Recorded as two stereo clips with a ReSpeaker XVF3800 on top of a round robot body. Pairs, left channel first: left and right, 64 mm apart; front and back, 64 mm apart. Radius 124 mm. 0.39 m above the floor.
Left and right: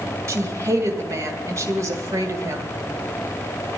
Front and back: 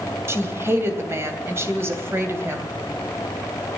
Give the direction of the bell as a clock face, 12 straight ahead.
I don't hear a bell.